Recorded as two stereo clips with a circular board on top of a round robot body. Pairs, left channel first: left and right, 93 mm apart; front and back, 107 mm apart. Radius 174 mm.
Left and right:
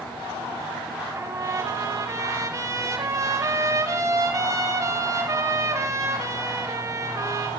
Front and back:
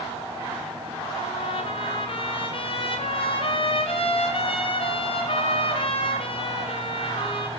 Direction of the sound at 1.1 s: 35° right.